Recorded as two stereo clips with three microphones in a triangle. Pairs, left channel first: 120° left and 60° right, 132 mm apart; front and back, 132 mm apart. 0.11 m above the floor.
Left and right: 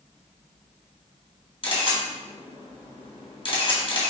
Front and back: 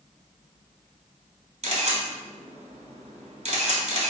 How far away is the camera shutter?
About 1.6 m.